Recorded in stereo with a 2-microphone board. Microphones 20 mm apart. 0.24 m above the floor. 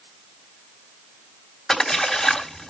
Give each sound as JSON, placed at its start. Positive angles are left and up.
{"t": 1.7, "sound": "a splash", "side_deg": 15, "distance_m": 2.0}